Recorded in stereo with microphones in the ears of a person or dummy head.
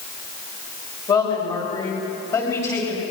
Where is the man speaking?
25° left (ahead or behind), 8 m; by 3.0 s 15° left (ahead or behind), 10 m.